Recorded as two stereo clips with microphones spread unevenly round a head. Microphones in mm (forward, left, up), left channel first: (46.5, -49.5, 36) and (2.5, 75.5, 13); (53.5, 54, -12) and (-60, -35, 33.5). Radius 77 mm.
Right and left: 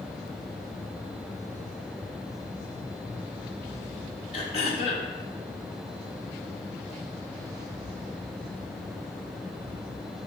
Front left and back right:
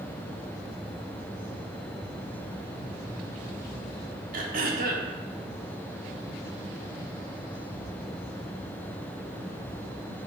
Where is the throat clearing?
110° right, 0.7 m.